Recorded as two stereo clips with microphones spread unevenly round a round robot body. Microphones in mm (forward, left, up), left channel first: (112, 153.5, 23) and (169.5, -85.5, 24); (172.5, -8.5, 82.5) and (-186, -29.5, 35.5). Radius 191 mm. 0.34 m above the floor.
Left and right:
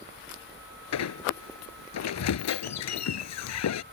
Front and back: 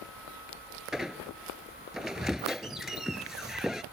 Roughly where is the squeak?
Left.